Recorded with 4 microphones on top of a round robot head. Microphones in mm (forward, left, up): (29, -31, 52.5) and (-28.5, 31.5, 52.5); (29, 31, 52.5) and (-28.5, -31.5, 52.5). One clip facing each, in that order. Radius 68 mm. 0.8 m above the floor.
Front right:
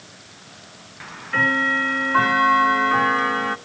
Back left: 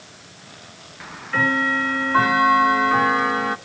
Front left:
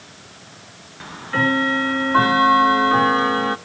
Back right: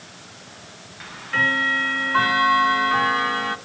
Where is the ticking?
50° left, 1.1 m.